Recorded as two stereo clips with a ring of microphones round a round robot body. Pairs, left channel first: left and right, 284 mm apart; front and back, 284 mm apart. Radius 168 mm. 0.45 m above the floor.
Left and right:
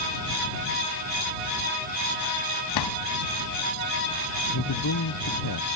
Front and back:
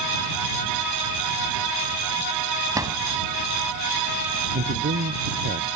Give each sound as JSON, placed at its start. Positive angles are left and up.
{"t": 2.8, "sound": "a drawer", "azimuth_deg": 100}
{"t": 4.5, "sound": "a man speaking", "azimuth_deg": 125}